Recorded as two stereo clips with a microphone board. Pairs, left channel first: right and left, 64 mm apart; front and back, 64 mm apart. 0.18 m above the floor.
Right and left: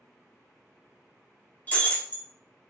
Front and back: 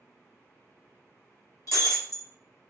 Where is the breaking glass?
25° right, 0.7 m.